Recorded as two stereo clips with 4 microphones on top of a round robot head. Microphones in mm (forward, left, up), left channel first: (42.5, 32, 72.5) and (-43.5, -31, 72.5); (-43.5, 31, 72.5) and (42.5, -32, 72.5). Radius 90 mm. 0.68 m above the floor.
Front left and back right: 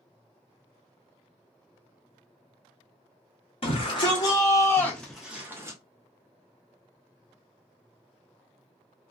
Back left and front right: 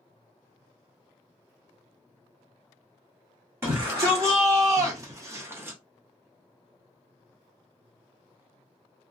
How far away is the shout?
About 1.3 m.